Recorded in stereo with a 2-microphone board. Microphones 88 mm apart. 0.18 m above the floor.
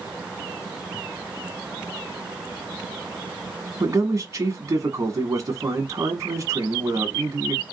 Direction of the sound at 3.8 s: 40° right (ahead or behind).